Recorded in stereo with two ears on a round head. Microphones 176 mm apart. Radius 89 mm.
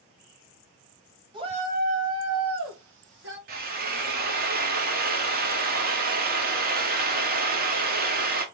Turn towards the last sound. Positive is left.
turn(degrees=-45)  # may be behind; listen again after turning